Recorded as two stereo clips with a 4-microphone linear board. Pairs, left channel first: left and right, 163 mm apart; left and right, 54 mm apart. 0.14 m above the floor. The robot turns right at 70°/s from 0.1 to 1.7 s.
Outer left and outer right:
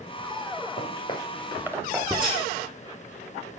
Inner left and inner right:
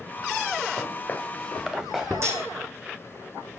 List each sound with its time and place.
0.8 s footsteps: 50° left (ahead or behind), 2.5 m; by 2.1 s 15° right (ahead or behind), 3.5 m
2.2 s cutlery clinking: 60° right (ahead or behind), 4.5 m